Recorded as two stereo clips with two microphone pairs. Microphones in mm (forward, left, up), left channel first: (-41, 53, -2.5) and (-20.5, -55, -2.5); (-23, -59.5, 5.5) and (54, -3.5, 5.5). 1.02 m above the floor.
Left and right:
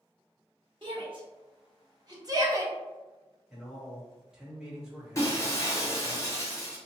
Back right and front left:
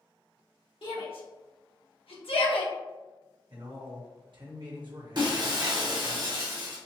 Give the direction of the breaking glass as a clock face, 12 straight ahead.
10 o'clock.